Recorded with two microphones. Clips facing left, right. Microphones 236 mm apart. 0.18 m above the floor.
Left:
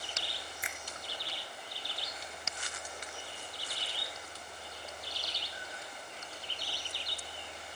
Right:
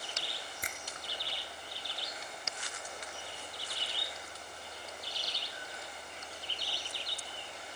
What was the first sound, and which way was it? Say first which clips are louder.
A finger snap: even; 45° right (ahead or behind).